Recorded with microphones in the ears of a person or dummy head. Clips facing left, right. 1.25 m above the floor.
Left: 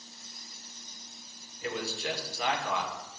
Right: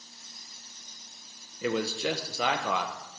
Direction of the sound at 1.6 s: 65° right (ahead or behind).